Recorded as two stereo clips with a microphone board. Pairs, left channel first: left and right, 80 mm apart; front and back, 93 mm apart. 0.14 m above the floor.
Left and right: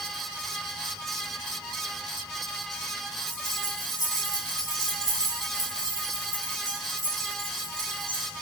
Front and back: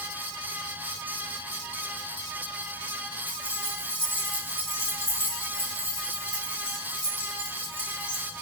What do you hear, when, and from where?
3.3 s keys jangling: 70° right, 4 m; by 8.3 s 30° right, 4 m